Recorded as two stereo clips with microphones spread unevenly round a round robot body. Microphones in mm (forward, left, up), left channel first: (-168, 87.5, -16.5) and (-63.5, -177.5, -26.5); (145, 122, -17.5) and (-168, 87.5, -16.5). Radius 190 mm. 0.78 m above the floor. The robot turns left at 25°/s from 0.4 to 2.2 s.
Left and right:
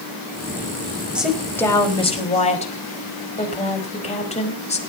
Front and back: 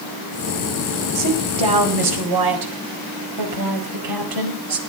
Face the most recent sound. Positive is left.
turn(degrees=180)